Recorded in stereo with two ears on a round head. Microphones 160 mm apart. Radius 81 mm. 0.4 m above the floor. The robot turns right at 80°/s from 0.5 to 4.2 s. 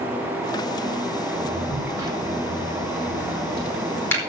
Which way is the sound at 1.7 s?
Centre (ahead or behind).